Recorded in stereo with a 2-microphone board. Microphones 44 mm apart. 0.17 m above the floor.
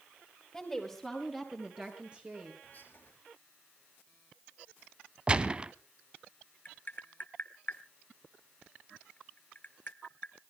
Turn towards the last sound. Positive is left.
turn(degrees=35)  # may be behind; listen again after turning